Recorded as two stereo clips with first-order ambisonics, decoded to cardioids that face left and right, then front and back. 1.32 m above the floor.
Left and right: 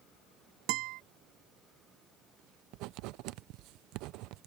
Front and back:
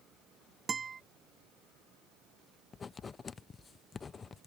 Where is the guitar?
110° right.